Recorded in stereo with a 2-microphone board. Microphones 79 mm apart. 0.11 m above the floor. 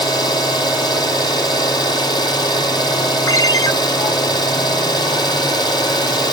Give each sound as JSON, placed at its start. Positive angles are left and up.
{"t": 0.0, "sound": "an engine running", "side_deg": 65, "distance_m": 1.8}
{"t": 3.3, "sound": "a ringtone", "side_deg": 45, "distance_m": 0.8}